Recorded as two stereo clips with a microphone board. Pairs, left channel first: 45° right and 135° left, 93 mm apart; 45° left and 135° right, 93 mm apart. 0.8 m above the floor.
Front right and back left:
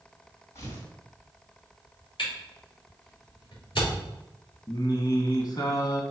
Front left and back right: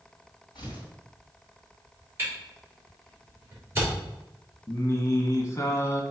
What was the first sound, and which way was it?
Tearing paper, 10° left.